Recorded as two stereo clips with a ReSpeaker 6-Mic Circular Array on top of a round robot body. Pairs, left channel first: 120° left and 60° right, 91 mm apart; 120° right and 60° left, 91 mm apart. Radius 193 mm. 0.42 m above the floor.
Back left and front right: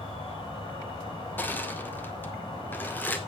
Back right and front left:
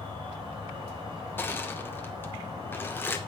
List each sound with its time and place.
0.0 s an insect: 95° left, 6.5 m
1.4 s crushing: 175° right, 1.7 m